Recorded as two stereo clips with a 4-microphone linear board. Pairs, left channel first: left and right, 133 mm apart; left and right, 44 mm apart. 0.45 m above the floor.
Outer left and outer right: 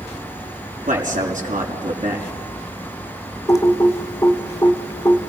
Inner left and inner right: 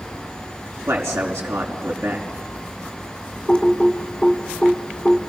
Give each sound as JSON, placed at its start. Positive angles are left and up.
{"t": 0.9, "sound": "a man speaking", "side_deg": -75, "distance_m": 5.0}
{"t": 3.5, "sound": "typing on a keyboard", "side_deg": 25, "distance_m": 1.4}